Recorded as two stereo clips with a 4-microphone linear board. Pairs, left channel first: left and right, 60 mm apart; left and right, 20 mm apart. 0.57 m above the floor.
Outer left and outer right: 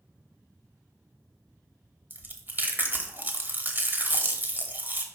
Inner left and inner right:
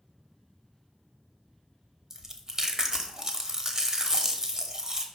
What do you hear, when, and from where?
2.1 s chewing: 35° right (ahead or behind), 0.9 m